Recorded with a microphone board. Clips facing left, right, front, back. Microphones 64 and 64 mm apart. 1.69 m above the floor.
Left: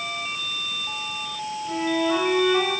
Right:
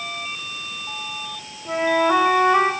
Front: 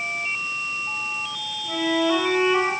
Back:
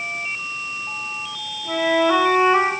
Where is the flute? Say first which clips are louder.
Right 5 dB, back 4 dB; 125° right, 5.5 m.